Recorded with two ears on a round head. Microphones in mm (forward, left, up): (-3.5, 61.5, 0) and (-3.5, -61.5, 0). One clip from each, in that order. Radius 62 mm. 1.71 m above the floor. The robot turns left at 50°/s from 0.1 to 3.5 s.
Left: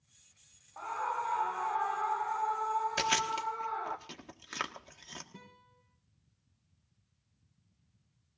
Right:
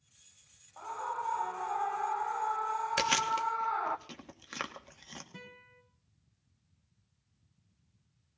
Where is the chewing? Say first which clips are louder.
Right 2 dB; 20° right (ahead or behind), 1.5 m; by 5.2 s 5° left (ahead or behind), 1.5 m.